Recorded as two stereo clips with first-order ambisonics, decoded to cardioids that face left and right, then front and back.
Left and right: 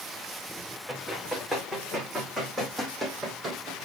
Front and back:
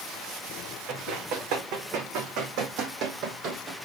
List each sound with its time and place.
0.9 s running footsteps: 175° right, 6 m; by 3.8 s 145° right, 2.5 m